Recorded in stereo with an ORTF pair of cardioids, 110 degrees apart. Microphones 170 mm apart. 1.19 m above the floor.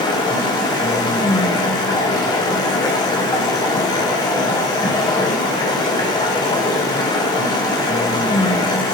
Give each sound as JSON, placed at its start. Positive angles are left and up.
{"t": 0.0, "sound": "running water", "azimuth_deg": 20, "distance_m": 0.8}